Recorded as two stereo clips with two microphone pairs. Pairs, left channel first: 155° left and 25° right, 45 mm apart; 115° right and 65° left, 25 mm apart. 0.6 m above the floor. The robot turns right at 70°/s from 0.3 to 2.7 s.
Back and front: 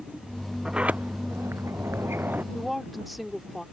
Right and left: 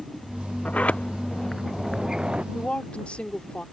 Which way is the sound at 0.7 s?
100° right.